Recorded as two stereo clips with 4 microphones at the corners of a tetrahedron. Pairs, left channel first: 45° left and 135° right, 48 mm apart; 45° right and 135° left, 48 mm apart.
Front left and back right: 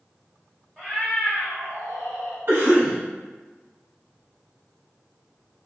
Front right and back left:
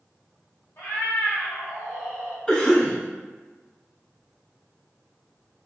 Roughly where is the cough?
Right.